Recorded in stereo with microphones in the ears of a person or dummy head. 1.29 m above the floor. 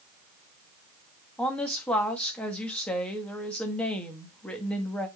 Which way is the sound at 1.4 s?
10° left (ahead or behind).